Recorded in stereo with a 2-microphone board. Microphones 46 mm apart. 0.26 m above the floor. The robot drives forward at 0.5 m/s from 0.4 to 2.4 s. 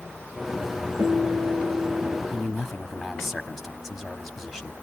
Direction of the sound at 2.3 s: Centre (ahead or behind).